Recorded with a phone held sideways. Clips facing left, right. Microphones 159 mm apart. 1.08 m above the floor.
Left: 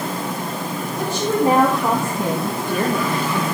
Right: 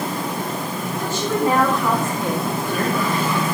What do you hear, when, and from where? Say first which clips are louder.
1.0 s a woman speaking: left 2 dB; 35° left (ahead or behind), 2.5 m; by 3.5 s 10° left (ahead or behind), 0.9 m